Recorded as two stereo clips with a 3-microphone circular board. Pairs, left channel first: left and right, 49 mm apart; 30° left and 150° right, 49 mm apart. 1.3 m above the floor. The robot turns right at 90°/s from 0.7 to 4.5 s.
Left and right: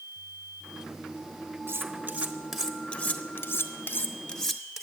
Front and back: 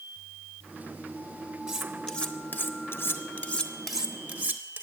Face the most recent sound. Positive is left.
turn(degrees=175)